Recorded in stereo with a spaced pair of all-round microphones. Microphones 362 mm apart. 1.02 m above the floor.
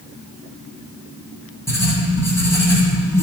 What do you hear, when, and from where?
1.7 s writing: 5° left (ahead or behind), 2.0 m